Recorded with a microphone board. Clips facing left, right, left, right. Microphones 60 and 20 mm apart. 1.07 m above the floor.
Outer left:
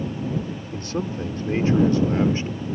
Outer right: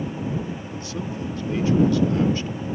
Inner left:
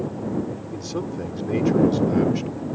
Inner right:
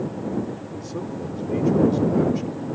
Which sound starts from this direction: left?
A man speaking, at 0.7 s.